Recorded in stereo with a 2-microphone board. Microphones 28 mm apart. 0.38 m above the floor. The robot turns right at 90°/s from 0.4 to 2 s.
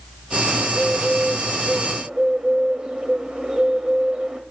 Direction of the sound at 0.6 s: 175° left.